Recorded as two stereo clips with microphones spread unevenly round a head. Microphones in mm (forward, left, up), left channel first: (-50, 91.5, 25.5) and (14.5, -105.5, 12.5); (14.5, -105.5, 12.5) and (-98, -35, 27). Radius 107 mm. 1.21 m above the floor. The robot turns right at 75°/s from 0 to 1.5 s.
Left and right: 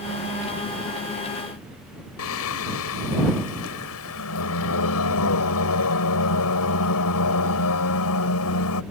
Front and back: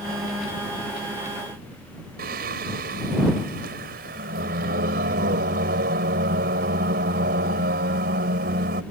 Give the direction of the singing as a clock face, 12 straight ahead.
8 o'clock.